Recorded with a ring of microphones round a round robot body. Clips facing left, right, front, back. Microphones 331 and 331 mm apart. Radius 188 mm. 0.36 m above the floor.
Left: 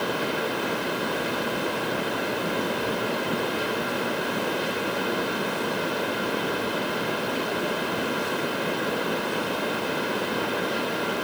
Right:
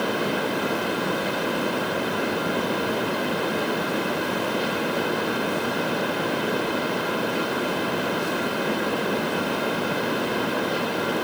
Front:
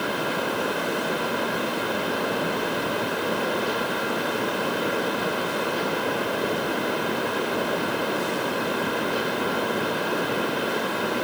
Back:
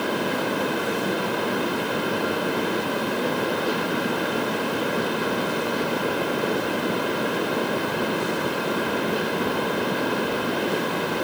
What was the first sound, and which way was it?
Only background noise.